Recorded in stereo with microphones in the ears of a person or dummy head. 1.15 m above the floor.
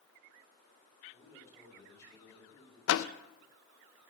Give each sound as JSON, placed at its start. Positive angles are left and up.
{"t": 1.1, "sound": "a man speaking", "side_deg": 15, "distance_m": 5.0}
{"t": 2.9, "sound": "a door slam", "side_deg": 70, "distance_m": 0.5}